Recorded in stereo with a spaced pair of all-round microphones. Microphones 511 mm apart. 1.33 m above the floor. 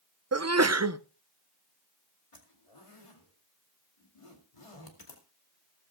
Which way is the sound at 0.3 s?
30° right (ahead or behind).